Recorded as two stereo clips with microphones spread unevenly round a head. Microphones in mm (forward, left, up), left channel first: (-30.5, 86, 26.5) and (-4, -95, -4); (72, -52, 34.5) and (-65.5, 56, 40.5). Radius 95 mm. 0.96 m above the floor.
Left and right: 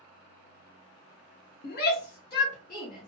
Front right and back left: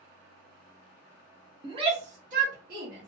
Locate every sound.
1.6 s a shout: 90° left, 0.9 m; by 3.1 s 145° left, 1.3 m